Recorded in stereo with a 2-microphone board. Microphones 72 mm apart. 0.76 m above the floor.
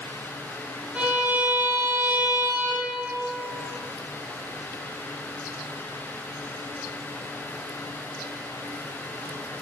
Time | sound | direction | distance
0.9 | a violin | 20° right (ahead or behind) | 0.8 m